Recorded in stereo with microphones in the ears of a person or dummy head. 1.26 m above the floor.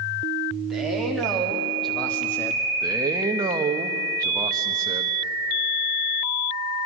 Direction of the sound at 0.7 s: Centre (ahead or behind).